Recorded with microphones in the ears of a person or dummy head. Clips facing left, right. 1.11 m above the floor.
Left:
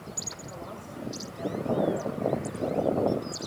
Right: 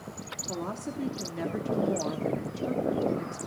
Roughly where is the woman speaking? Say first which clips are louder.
Right 9 dB; right.